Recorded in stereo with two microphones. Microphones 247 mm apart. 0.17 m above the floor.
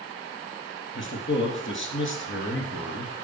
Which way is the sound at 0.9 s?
50° left (ahead or behind).